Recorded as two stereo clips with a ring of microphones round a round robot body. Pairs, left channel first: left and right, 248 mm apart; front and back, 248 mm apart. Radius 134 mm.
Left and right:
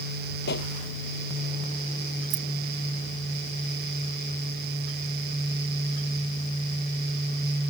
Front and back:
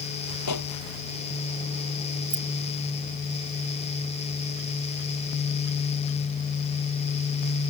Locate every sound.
0.5 s a pop: 35° left
2.3 s keys jangling: 110° right